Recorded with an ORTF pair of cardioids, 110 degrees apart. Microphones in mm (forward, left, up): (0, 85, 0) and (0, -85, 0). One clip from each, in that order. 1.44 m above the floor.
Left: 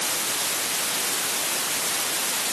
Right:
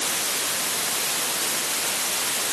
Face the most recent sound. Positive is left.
No sound to turn to.